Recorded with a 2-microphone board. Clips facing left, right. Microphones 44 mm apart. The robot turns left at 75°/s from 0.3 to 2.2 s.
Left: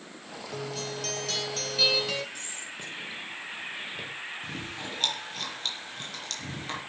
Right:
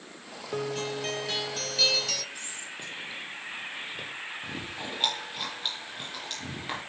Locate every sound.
0.5 s a guitar: 95° right, 0.9 m; by 2.2 s 140° left, 0.9 m
2.4 s whispering: 5° right (ahead or behind), 4.5 m
4.4 s chewing: 15° right (ahead or behind), 5 m